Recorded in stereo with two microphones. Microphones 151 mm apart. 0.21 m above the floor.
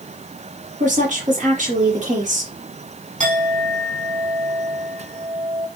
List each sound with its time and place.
0.8 s a woman speaking: 55° right (ahead or behind), 5 m
3.2 s a clink: 55° right (ahead or behind), 6.5 m